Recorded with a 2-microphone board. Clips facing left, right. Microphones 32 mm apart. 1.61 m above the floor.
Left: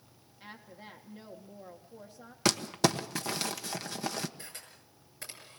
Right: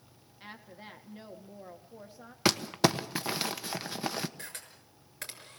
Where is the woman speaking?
20° right (ahead or behind), 1.7 m.